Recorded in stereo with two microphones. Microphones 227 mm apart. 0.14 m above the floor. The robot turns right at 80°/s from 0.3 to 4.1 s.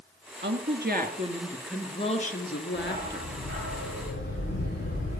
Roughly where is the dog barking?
Ahead.